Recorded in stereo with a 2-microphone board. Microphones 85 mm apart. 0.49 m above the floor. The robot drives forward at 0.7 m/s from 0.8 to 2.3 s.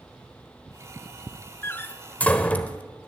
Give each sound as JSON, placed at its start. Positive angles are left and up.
{"t": 1.6, "sound": "a door slam", "side_deg": 30, "distance_m": 0.6}